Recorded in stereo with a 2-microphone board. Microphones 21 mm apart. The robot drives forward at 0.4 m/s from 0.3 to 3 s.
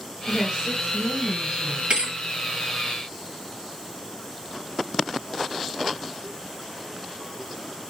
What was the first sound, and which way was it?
A woman speaking, 50° right (ahead or behind).